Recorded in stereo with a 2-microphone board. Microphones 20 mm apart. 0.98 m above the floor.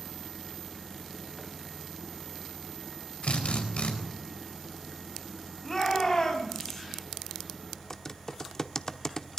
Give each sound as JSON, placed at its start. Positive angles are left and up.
{"t": 3.2, "sound": "a drill", "side_deg": 75, "distance_m": 4.5}
{"t": 5.6, "sound": "a shout", "side_deg": 15, "distance_m": 6.0}
{"t": 7.9, "sound": "typing on a keyboard", "side_deg": 15, "distance_m": 0.9}